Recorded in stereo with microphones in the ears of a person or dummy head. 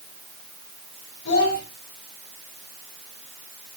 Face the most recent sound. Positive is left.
turn(degrees=65)  # may be behind; listen again after turning